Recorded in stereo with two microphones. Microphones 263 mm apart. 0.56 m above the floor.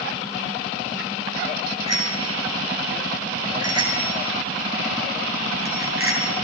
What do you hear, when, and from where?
1.9 s a bicycle bell: 80° right, 6.5 m; by 6.3 s 55° right (ahead or behind), 7.5 m